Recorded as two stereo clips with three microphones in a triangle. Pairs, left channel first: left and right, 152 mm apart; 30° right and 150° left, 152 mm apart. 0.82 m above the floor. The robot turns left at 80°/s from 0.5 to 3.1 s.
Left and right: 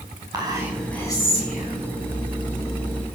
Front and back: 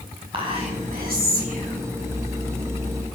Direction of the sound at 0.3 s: 155° right.